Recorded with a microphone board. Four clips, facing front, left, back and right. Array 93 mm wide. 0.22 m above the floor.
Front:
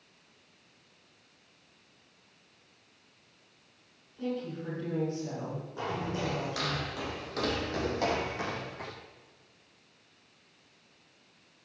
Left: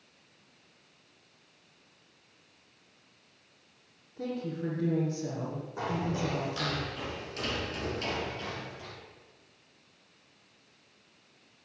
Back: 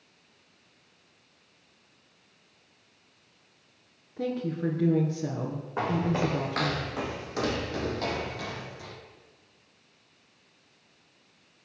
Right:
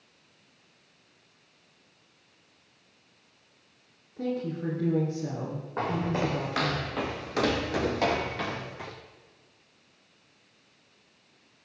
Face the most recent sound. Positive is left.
turn(degrees=-50)